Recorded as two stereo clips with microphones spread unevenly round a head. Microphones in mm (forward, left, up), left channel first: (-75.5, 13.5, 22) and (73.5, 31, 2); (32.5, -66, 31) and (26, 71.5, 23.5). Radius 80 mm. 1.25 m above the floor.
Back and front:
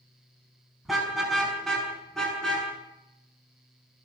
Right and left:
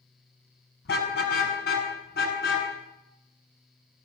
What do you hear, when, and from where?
0.8 s a car horn: 85° right, 6 m